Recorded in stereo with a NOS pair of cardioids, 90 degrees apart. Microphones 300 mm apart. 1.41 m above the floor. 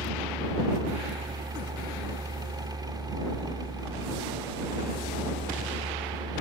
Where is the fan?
15° right.